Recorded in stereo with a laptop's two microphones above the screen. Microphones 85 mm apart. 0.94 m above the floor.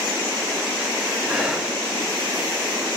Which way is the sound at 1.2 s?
15° right (ahead or behind).